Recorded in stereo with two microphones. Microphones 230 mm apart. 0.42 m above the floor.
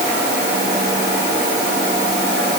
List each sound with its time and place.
Only background noise.